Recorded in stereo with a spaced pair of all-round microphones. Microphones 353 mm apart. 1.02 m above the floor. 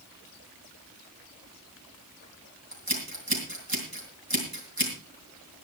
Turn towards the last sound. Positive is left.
turn(degrees=-85)